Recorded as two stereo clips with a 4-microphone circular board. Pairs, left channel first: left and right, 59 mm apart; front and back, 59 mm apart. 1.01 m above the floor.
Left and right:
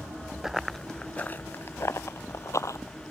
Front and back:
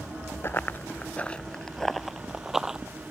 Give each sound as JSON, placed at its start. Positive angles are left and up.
{"t": 0.4, "sound": "running footsteps", "azimuth_deg": -10}